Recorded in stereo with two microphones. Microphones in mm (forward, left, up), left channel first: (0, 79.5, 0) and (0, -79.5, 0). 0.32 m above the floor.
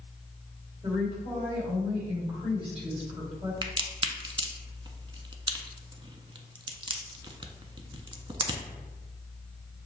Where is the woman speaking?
35° right (ahead or behind), 1.9 m.